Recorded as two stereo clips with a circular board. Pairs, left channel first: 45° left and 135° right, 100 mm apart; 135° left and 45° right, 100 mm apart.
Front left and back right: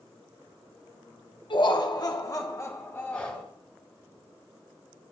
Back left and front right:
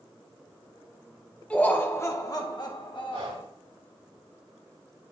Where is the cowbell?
I don't hear a cowbell.